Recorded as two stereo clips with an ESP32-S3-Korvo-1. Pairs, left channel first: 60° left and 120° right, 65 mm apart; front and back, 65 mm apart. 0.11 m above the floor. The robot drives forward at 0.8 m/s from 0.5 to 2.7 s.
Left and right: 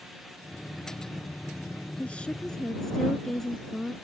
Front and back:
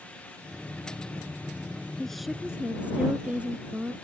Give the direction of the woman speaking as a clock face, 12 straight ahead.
10 o'clock.